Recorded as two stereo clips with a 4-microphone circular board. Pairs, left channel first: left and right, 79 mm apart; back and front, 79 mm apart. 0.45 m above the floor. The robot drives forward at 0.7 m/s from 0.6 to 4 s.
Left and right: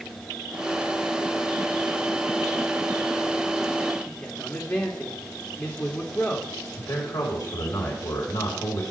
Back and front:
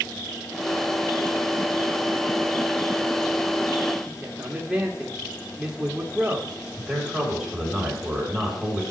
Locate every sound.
4.1 s a man speaking: 60° left, 1.0 m
6.8 s a man speaking: 85° left, 2.5 m